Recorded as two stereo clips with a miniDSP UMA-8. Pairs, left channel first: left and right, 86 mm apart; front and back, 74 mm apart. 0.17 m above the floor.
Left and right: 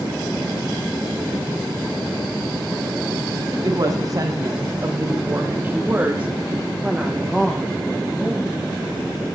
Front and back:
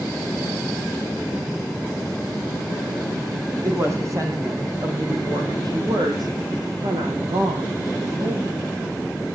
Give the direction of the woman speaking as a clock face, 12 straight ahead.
4 o'clock.